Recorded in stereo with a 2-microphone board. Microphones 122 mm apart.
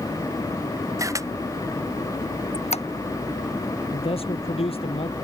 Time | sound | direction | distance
1.0 | a camera shutter | 25° right (ahead or behind) | ?
2.5 | a squeak | 60° left (ahead or behind) | ?
3.9 | a man speaking | 55° left (ahead or behind) | ?